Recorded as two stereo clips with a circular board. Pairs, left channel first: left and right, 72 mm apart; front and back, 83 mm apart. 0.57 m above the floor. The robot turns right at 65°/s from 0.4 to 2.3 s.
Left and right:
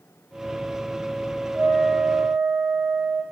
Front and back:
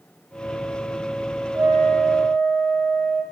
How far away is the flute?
About 0.5 m.